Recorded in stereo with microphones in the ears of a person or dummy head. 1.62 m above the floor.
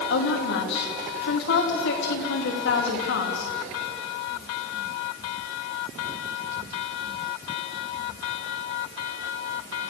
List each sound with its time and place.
0.1 s a woman speaking: 80° left, 3 m